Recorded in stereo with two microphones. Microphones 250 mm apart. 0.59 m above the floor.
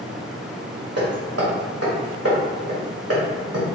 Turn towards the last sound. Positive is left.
turn(degrees=-75)  # may be behind; listen again after turning